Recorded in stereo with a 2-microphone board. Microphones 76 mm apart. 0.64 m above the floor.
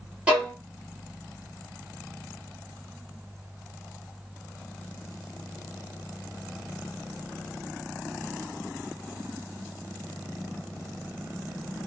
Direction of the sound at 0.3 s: 20° right (ahead or behind).